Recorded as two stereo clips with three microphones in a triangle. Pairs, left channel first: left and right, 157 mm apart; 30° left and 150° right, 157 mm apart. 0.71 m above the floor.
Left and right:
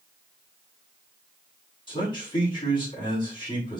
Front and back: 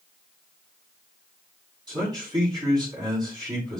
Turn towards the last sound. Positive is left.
turn(degrees=145)